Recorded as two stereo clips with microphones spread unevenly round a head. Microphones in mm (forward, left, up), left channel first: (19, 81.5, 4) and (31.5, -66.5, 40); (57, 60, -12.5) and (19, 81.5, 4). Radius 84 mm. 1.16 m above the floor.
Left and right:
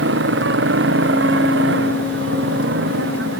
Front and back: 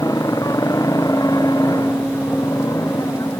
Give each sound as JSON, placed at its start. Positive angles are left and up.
{"t": 0.0, "sound": "a motorcycle", "azimuth_deg": -85}